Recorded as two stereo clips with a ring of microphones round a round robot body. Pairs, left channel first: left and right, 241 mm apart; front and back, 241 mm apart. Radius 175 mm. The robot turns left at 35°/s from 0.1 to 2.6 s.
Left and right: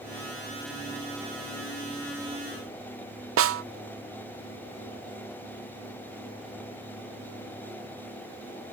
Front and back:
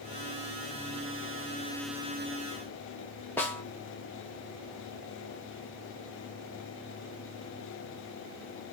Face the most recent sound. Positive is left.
turn(degrees=-80)